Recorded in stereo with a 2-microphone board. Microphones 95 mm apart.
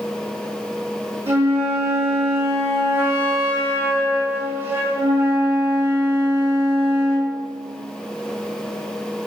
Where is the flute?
20° right (ahead or behind), 2.5 m.